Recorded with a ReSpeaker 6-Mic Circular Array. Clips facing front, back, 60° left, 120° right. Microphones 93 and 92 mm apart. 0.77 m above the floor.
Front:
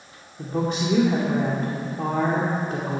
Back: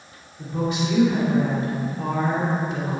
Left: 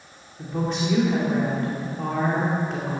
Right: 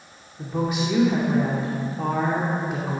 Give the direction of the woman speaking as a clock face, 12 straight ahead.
1 o'clock.